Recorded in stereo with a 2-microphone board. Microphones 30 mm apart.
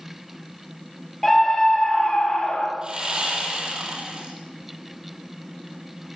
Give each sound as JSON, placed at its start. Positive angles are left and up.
{"t": 1.2, "sound": "a scream", "side_deg": 5, "distance_m": 5.5}
{"t": 2.8, "sound": "sawing", "side_deg": -30, "distance_m": 8.0}